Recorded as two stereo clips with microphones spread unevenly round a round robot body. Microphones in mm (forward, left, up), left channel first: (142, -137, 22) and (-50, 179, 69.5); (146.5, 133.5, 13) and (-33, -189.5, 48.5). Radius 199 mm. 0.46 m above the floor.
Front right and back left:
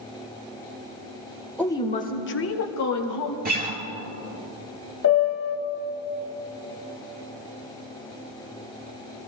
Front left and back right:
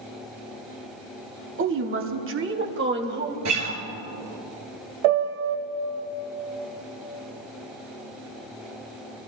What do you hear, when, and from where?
1.6 s a woman speaking: 125° right, 1.2 m; by 3.4 s 55° right, 2 m
3.5 s a guitar: 170° right, 1.9 m
5.0 s a piano: 115° right, 1.3 m